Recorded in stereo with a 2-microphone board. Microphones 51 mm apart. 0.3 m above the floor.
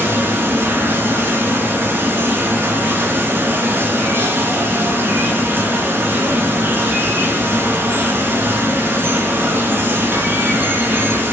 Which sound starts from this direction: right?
Running water, at 0.0 s.